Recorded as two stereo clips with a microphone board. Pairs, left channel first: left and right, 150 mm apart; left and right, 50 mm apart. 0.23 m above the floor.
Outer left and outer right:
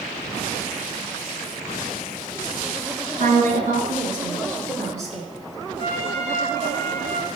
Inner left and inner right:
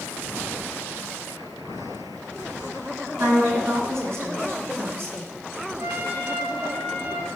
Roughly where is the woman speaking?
Right.